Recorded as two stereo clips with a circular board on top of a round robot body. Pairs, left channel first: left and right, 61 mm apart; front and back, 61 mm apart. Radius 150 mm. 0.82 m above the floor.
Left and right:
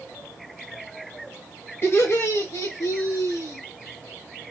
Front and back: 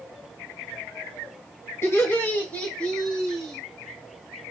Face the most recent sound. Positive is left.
turn(degrees=85)